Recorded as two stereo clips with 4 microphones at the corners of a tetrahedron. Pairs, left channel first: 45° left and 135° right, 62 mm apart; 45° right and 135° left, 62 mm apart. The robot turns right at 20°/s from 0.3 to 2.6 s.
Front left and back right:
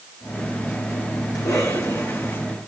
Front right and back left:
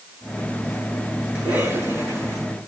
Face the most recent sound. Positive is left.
turn(degrees=95)